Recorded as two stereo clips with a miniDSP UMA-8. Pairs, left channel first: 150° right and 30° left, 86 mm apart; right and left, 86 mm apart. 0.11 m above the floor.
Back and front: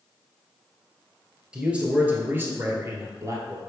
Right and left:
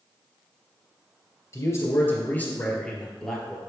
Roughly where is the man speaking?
Ahead right.